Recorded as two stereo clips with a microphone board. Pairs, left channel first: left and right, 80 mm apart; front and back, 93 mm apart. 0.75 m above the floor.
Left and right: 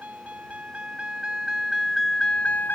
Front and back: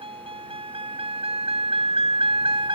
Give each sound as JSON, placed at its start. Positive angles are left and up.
{"t": 0.0, "sound": "a vehicle", "azimuth_deg": -160}